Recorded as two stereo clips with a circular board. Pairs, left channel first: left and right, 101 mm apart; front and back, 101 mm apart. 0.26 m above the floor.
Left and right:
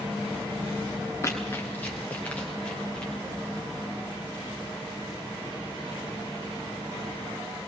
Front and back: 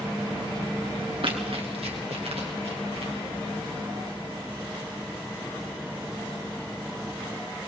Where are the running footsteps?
150° left, 2 m; by 3.1 s 175° left, 4 m.